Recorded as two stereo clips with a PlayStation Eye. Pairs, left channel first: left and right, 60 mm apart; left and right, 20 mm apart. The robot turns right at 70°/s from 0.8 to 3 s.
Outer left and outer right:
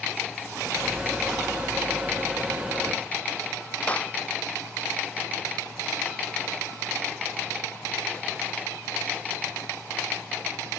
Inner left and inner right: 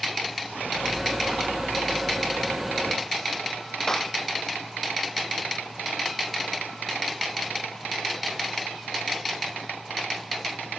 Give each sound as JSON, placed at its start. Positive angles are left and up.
{"t": 3.9, "sound": "a clap", "side_deg": 25}